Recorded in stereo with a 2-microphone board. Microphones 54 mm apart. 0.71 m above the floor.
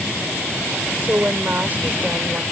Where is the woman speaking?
35° right (ahead or behind).